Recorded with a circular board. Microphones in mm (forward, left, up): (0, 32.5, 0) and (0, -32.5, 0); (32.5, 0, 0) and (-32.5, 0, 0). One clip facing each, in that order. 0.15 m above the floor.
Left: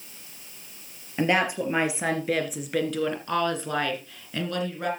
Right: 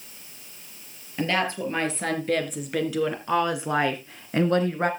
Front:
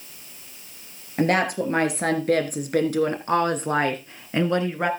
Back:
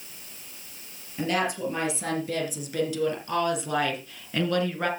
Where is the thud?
I don't hear a thud.